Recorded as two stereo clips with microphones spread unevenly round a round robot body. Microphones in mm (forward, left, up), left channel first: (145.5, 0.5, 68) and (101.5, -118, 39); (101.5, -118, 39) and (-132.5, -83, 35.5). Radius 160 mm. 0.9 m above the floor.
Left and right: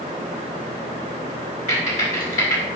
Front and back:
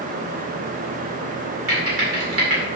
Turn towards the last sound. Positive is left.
turn(degrees=125)